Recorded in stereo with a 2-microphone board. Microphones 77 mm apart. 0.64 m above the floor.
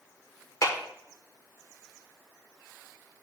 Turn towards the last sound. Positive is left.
turn(degrees=45)  # may be behind; listen again after turning